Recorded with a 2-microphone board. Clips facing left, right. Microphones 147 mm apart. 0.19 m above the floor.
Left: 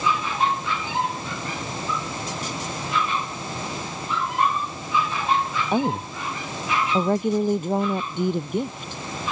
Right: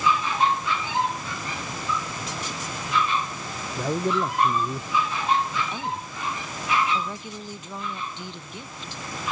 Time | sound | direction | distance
3.8 | a man speaking | 75° right (ahead or behind) | ?
5.7 | a woman speaking | 55° left (ahead or behind) | ?